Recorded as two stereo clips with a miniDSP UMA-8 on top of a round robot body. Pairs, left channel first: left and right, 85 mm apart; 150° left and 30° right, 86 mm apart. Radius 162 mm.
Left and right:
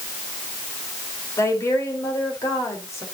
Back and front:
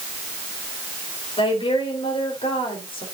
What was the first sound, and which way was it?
A woman speaking, 145° left.